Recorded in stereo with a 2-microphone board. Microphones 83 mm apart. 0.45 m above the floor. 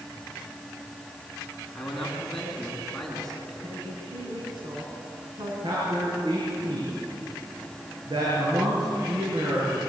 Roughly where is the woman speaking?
Right.